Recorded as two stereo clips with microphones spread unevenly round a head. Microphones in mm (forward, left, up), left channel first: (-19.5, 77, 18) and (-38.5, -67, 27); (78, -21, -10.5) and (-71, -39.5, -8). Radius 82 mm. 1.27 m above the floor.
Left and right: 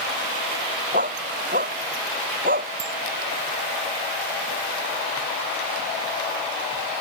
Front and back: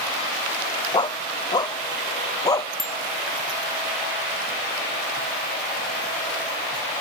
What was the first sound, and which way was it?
A dog barking, 55° right.